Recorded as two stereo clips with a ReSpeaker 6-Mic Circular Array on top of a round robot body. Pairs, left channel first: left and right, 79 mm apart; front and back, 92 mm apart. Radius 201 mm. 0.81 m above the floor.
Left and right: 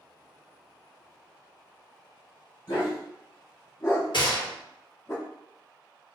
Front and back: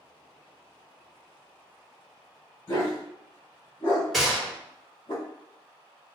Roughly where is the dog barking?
Ahead left.